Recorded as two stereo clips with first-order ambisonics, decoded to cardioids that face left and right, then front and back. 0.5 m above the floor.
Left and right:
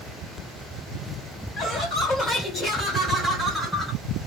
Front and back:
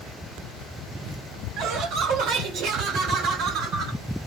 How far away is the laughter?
About 2.5 m.